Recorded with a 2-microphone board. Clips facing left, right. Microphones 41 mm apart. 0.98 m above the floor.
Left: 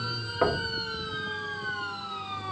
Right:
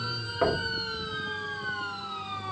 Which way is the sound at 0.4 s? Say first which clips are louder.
Even; 10° left (ahead or behind).